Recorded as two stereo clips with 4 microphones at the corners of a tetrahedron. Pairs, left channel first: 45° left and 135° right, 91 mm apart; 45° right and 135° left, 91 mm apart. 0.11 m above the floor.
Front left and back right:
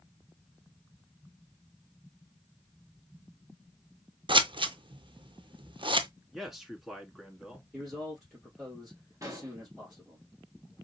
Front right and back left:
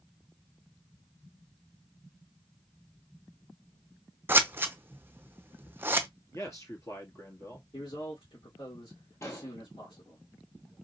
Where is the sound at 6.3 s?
50° right, 1.5 m.